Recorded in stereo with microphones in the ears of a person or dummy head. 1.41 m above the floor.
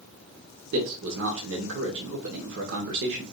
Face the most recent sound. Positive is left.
turn(degrees=-65)  # may be behind; listen again after turning